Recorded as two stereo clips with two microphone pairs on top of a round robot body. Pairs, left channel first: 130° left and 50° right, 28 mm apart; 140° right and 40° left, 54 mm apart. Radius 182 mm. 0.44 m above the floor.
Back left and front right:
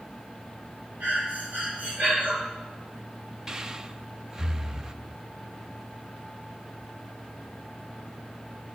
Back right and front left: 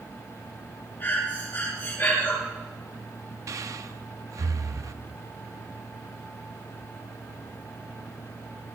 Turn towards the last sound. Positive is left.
turn(degrees=20)